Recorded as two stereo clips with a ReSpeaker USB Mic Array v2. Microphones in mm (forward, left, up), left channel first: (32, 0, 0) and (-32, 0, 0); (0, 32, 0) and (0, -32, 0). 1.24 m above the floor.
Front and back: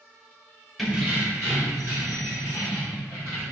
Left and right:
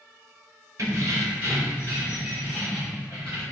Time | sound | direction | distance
0.8 | keys jangling | 95° right | 0.6 m